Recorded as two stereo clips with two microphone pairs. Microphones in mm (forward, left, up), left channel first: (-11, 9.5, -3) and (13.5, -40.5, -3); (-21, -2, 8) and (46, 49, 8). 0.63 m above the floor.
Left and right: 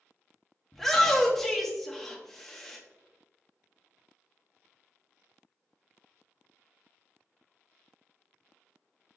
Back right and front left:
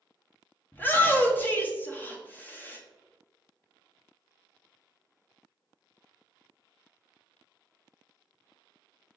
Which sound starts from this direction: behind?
A shout, at 0.7 s.